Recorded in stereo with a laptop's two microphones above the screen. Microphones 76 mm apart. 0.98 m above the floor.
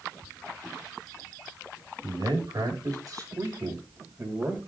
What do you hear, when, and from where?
2.0 s a man speaking: 60° right (ahead or behind), 5.5 m; by 4.6 s 30° right (ahead or behind), 5 m